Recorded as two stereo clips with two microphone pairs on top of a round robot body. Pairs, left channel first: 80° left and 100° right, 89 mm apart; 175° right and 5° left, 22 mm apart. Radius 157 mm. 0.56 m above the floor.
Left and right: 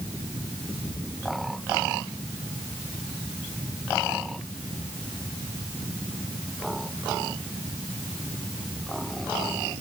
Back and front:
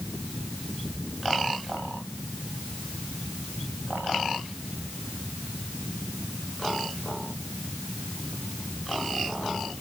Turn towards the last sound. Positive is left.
No sound to turn to.